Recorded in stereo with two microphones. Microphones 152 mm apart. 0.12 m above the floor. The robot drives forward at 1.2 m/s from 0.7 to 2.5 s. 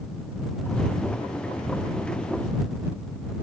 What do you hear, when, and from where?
Only background noise.